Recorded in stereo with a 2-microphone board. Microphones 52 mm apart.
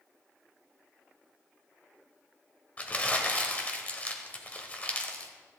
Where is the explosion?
I don't hear an explosion.